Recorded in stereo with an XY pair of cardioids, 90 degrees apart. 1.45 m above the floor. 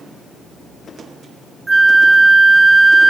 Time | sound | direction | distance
1.7 | a flute | 20° right | ?